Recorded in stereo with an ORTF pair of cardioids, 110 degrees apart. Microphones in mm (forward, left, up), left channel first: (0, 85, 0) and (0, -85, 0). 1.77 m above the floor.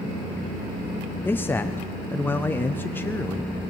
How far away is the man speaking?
About 0.7 m.